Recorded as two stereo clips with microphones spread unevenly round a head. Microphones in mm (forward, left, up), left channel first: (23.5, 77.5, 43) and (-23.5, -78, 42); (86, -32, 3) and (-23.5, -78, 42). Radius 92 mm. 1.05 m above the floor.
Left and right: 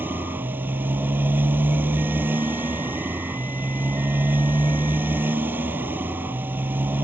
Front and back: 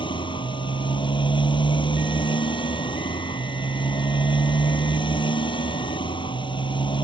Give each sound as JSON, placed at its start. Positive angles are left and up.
{"t": 0.0, "sound": "a motorcycle", "azimuth_deg": -30}